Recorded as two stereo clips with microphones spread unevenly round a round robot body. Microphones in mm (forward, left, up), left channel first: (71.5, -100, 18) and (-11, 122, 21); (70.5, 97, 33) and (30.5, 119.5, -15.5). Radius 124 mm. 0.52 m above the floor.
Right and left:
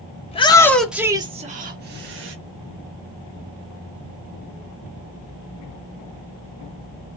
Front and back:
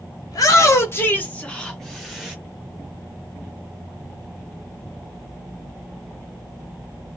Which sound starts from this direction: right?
A shout, at 0.3 s.